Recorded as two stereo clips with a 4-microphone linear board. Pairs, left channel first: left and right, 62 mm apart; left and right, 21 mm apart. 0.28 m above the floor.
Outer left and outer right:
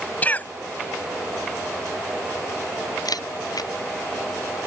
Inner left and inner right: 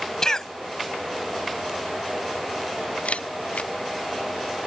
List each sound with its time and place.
0.2 s a cough: 25° left (ahead or behind)
3.0 s a camera shutter: 85° left